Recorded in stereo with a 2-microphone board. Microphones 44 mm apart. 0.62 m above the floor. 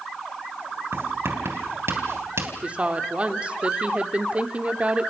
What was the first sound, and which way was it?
Writing, 65° right (ahead or behind).